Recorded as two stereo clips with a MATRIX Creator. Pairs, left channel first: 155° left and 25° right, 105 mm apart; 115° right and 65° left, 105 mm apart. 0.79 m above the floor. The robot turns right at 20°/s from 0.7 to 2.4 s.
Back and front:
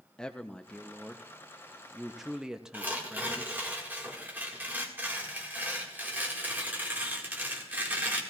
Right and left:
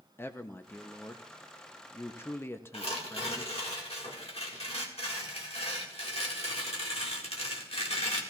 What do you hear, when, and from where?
0.2 s a man speaking: 135° right, 0.6 m; by 3.5 s 100° right, 0.6 m
2.7 s tearing paper: 95° right, 1.8 m